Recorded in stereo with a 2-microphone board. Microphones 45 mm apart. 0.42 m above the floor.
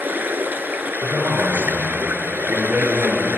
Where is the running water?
45° right (ahead or behind), 1.5 m.